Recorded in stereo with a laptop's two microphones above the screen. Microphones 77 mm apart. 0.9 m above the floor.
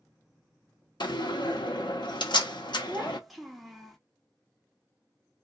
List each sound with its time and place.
1.0 s a door slam: 85° left, 0.7 m
2.9 s a child speaking: centre (ahead or behind), 0.6 m